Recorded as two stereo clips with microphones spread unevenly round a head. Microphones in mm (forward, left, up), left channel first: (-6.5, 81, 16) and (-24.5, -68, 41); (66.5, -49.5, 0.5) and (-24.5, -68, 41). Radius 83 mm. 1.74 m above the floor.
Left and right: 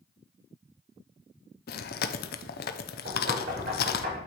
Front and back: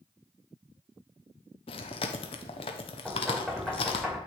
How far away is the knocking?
About 4 m.